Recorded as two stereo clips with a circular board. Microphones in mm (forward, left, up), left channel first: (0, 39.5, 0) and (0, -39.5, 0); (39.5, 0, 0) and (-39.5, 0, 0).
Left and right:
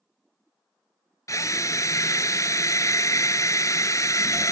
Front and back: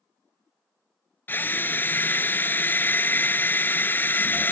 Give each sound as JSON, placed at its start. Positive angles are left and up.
{"t": 1.3, "sound": "a drill", "azimuth_deg": 55}